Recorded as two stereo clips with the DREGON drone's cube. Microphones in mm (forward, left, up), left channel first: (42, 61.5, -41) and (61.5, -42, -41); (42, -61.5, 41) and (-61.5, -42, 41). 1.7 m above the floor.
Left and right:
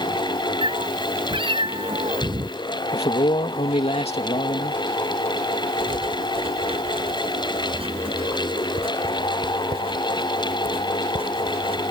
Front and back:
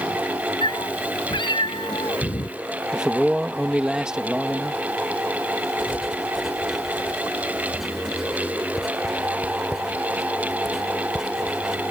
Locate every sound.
0.6 s a cat meowing: 50° right
2.9 s a man speaking: 85° left
5.8 s writing: 105° right